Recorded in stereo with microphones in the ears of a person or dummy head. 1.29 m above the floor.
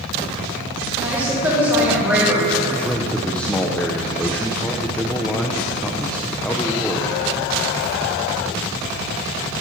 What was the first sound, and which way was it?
A woman speaking, 10° right (ahead or behind).